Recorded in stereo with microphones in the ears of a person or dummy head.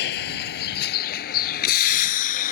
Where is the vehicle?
65° left (ahead or behind); by 2.5 s 50° left (ahead or behind).